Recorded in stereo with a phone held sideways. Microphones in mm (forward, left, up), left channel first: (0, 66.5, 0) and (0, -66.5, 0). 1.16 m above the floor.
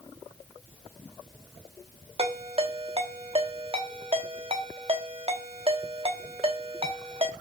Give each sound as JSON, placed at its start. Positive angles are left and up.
{"t": 2.2, "sound": "a ringtone", "side_deg": -45, "distance_m": 1.1}